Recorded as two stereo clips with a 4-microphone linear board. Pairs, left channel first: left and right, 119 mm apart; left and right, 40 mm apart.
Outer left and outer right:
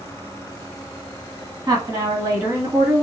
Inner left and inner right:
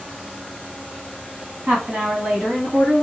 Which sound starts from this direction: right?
A woman speaking, at 1.7 s.